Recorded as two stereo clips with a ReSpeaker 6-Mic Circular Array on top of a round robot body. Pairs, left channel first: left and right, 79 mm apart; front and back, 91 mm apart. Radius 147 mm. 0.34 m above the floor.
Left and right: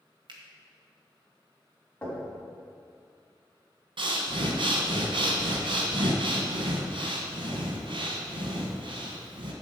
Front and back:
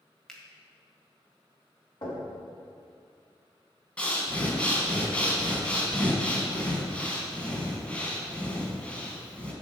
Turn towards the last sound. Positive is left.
turn(degrees=-75)